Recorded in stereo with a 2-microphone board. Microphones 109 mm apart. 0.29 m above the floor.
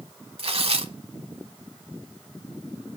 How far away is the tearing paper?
About 0.8 m.